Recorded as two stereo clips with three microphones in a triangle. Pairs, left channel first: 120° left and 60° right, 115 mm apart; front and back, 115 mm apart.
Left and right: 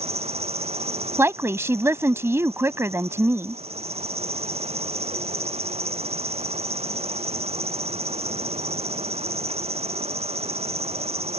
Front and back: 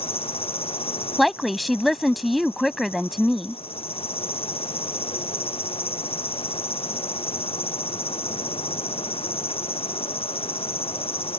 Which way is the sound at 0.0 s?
35° right.